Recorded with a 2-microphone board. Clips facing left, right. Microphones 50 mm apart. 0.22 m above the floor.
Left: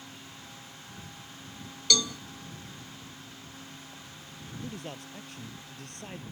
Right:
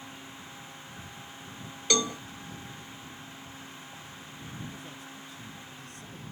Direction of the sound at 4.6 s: 65° left (ahead or behind).